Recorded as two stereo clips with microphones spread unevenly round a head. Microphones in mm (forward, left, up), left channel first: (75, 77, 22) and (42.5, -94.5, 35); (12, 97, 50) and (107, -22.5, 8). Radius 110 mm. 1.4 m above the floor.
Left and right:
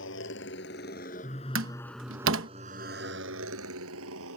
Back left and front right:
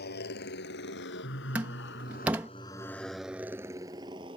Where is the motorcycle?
115° left; by 4.4 s 120° right.